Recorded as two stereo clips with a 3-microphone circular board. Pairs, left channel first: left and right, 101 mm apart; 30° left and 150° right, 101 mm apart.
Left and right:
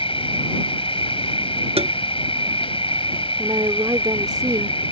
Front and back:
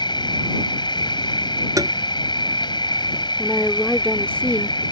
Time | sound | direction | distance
0.0 | an insect | 70° left | ?
1.8 | tapping | 95° right | ?
3.4 | a woman speaking | 45° right | ?